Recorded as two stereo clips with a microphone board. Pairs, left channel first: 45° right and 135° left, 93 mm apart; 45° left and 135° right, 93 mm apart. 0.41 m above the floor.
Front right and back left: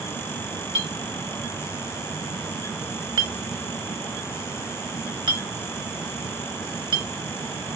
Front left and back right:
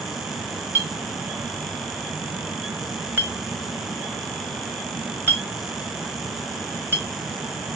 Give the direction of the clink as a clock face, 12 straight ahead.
7 o'clock.